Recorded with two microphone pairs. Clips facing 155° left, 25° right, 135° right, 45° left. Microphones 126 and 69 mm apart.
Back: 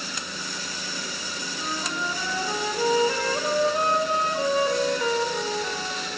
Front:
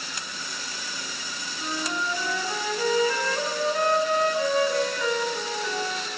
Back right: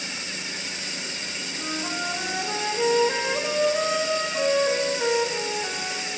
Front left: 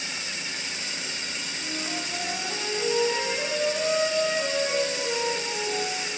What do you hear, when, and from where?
1.6 s a flute: 145° right, 2.5 m